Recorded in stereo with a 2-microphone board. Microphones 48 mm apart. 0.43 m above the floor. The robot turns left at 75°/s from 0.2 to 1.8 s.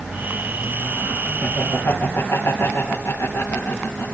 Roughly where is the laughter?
Left.